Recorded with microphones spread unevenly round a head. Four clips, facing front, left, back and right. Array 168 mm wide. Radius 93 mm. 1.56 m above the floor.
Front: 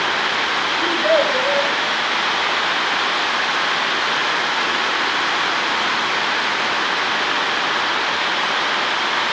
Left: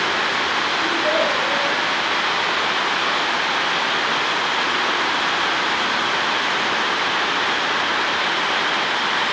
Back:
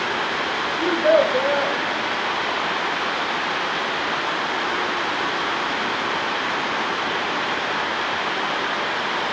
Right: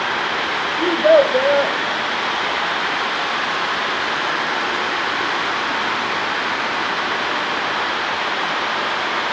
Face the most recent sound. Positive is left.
turn(degrees=-80)